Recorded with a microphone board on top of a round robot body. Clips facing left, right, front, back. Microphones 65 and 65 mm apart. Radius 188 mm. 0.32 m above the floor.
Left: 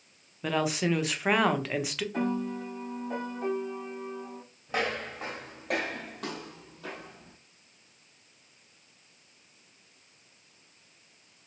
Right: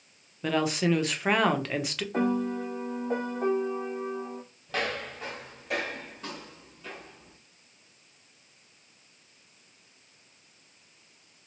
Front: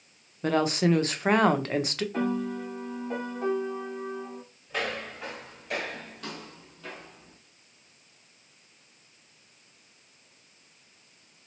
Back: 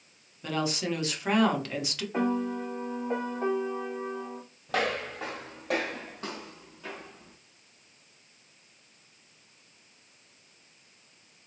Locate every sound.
0.4 s a woman speaking: 5° left, 1.0 m
2.1 s a piano: 120° right, 1.8 m
4.7 s footsteps: 160° left, 1.3 m; by 7.4 s 85° left, 1.4 m